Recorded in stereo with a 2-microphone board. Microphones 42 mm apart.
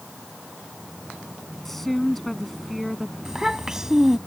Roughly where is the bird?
I don't hear a bird.